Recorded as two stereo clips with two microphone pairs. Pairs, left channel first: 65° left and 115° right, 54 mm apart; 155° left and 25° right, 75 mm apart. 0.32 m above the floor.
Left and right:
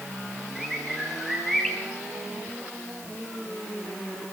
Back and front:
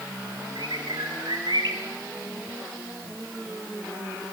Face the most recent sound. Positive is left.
turn(degrees=-25)